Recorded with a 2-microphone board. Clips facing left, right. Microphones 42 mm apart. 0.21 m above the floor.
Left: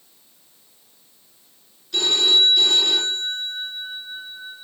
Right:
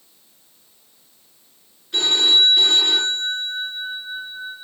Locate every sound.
1.9 s a phone ringing: 30° right (ahead or behind), 2 m